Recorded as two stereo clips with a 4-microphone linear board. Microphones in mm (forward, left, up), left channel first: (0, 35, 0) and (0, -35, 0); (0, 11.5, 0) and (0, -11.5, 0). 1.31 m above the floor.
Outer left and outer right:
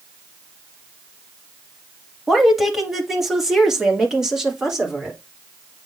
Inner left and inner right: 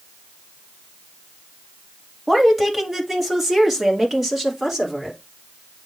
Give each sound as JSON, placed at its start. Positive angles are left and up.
{"t": 2.3, "sound": "a woman speaking", "side_deg": 0, "distance_m": 1.8}